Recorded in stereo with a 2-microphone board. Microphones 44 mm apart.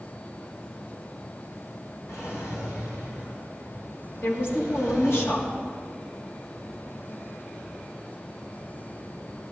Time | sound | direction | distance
2.1 | a drawer | 80° left | 5 m
4.2 | a woman speaking | 60° left (ahead or behind) | 2.5 m